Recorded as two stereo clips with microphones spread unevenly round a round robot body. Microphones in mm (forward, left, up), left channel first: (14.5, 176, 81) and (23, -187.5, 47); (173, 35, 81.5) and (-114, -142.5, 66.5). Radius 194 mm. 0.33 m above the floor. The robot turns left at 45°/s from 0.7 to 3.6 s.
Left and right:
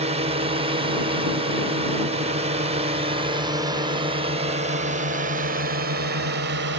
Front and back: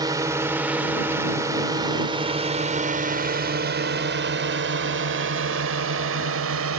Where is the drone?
95° right; by 6.8 s 130° right.